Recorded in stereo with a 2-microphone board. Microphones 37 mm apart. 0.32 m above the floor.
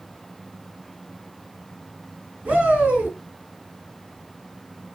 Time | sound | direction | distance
2.5 | a shout | 30° right (ahead or behind) | 3.5 m